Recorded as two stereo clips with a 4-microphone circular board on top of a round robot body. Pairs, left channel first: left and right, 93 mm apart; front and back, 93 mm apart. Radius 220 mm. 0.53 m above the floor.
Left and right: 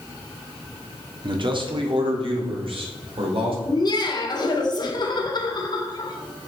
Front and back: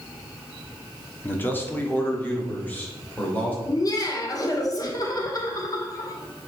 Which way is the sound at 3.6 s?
50° left.